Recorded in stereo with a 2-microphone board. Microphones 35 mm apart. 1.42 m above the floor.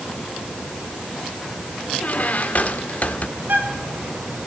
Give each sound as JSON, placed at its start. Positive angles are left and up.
{"t": 2.0, "sound": "a squeak", "side_deg": 50, "distance_m": 1.5}
{"t": 3.4, "sound": "a bird", "side_deg": -70, "distance_m": 5.5}